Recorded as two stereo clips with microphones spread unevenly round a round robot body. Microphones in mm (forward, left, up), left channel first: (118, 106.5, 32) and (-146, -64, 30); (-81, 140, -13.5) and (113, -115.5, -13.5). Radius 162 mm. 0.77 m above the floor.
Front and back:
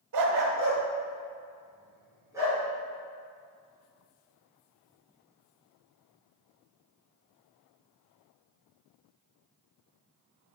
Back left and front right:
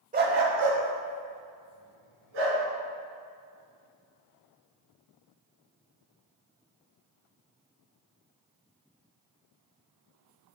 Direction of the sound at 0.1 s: 120° right.